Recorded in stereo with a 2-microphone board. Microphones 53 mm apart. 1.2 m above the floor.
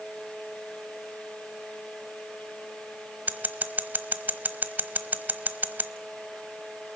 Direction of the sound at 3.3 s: 35° right (ahead or behind).